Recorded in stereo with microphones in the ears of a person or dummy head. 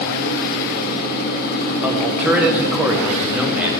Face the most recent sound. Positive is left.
turn(degrees=-5)  # may be behind; listen again after turning